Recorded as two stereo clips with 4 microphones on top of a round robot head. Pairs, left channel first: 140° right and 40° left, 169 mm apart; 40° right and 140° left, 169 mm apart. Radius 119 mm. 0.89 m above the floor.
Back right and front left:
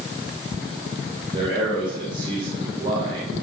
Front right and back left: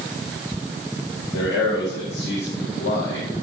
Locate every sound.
1.3 s a man speaking: 25° right, 4.5 m